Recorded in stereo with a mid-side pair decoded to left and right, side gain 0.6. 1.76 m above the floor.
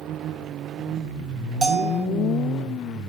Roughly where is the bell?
Ahead right.